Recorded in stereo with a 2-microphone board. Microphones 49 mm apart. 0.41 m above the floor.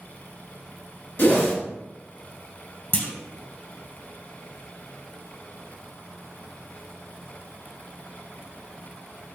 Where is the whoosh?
45° left (ahead or behind), 1.5 m.